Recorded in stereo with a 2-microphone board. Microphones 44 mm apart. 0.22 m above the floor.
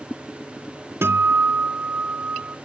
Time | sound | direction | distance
1.0 | a guitar | 70° right (ahead or behind) | 0.7 m